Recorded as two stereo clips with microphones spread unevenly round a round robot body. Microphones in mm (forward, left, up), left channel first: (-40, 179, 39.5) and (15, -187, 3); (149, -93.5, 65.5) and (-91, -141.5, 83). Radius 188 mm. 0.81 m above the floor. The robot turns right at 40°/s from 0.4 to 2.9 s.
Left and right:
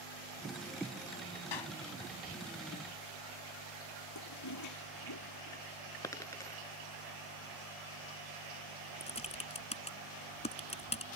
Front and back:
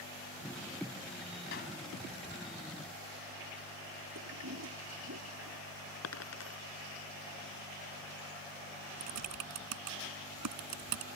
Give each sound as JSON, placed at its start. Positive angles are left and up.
{"t": 1.5, "sound": "a clap", "azimuth_deg": 70}
{"t": 4.2, "sound": "a toilet flushing", "azimuth_deg": 140}
{"t": 6.0, "sound": "a dropped coin", "azimuth_deg": 25}
{"t": 9.0, "sound": "typing on a keyboard", "azimuth_deg": 170}